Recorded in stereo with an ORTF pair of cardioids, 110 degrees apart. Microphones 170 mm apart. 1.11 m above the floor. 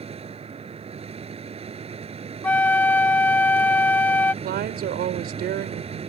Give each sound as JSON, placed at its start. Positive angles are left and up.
{"t": 0.0, "sound": "a machine running", "azimuth_deg": -35}
{"t": 2.4, "sound": "a flute", "azimuth_deg": 10}
{"t": 4.4, "sound": "a woman speaking", "azimuth_deg": -65}